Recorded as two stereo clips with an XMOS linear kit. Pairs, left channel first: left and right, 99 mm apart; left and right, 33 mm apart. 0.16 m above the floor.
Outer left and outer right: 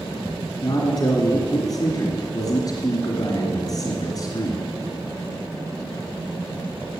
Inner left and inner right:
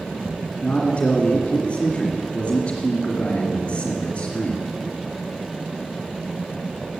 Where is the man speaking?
45° left (ahead or behind), 2.5 m.